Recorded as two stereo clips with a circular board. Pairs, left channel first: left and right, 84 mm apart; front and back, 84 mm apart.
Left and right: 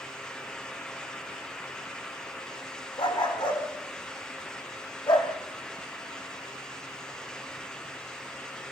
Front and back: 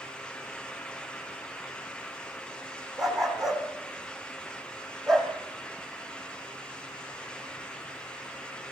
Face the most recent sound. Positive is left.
turn(degrees=85)